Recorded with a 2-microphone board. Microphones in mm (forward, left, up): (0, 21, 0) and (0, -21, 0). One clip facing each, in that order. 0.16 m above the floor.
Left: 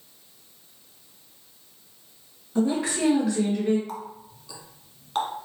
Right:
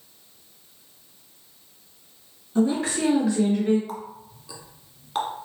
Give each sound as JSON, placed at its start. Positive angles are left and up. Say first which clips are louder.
{"t": 2.5, "sound": "a woman speaking", "louder": "right 2 dB", "side_deg": 15, "distance_m": 1.5}
{"t": 3.9, "sound": "a running tap", "louder": "right 1 dB", "side_deg": -5, "distance_m": 1.1}